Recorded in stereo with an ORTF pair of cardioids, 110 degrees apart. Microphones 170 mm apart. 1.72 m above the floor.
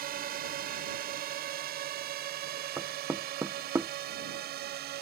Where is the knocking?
15° right.